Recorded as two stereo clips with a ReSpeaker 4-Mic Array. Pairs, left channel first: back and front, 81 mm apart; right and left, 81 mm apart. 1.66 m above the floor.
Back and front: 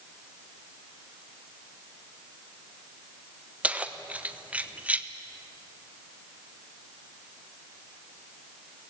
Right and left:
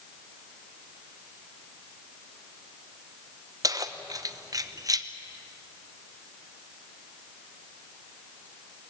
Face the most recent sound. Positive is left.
turn(degrees=70)